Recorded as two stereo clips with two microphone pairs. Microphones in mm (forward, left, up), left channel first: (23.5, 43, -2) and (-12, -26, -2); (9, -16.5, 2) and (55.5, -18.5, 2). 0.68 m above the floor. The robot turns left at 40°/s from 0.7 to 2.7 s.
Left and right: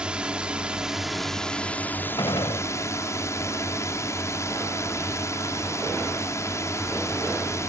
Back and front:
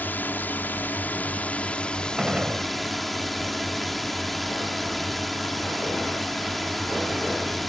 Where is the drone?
170° left; by 7.7 s 90° left.